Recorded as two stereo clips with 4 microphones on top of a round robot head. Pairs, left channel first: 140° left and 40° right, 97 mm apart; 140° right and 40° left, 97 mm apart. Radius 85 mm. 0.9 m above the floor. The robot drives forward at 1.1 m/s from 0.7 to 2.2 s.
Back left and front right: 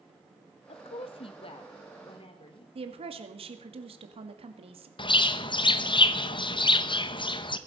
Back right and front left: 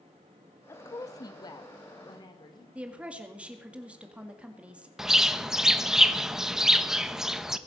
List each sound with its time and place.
0.7 s a woman speaking: 155° left, 0.8 m; by 2.6 s 175° left, 2.5 m
2.8 s a woman speaking: 40° right, 2.5 m
5.0 s a bird: 125° left, 1.1 m